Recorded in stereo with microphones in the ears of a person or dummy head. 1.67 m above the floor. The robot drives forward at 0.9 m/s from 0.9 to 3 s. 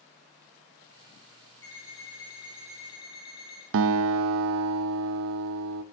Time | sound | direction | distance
1.6 | an alarm clock | 15° left (ahead or behind) | 4 m
3.7 | a guitar | 75° right (ahead or behind) | 0.5 m